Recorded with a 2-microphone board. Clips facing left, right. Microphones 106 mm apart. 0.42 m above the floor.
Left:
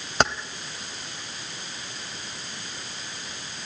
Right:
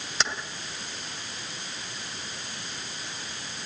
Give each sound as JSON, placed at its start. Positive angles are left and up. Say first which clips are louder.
{"t": 0.2, "sound": "keys jangling", "louder": "left 8 dB", "side_deg": 55, "distance_m": 1.5}